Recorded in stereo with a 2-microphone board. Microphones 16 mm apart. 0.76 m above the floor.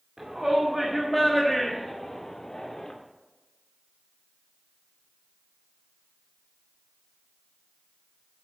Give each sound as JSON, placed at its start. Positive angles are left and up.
{"t": 0.2, "sound": "a shout", "side_deg": -35, "distance_m": 2.0}